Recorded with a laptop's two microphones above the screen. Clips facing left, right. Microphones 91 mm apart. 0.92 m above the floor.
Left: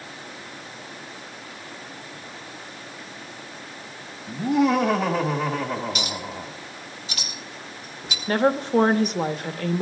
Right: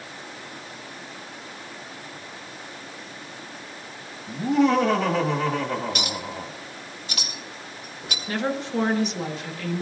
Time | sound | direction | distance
4.3 | laughter | centre (ahead or behind) | 1.4 m
6.0 | a clink | 55° right (ahead or behind) | 2 m
8.3 | a woman speaking | 45° left (ahead or behind) | 1.1 m